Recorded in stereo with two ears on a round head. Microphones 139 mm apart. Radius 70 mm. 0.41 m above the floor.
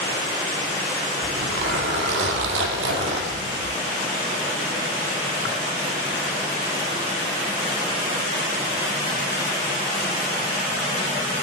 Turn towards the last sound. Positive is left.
turn(degrees=-80)